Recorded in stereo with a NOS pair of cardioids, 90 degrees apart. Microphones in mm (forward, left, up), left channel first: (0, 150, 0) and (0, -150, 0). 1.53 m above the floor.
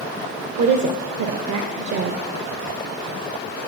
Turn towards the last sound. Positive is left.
turn(degrees=-70)